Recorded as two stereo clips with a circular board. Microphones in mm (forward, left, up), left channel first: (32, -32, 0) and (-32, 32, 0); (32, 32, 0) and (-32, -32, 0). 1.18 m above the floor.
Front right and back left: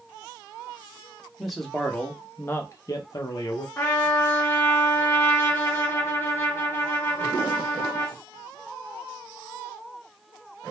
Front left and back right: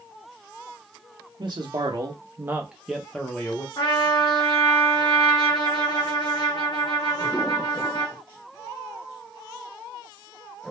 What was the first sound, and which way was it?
A man speaking, 135° right.